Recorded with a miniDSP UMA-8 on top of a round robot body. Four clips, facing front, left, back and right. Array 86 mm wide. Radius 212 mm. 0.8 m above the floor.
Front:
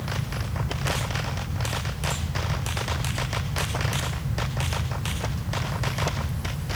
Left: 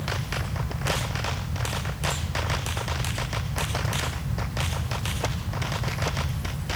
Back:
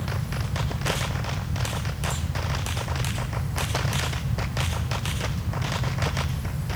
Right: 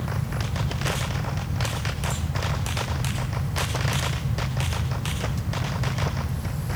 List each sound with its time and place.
Only background noise.